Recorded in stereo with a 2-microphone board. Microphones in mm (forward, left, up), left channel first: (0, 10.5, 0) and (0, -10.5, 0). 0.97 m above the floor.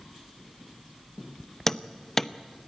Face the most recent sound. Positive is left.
turn(degrees=15)  # may be behind; listen again after turning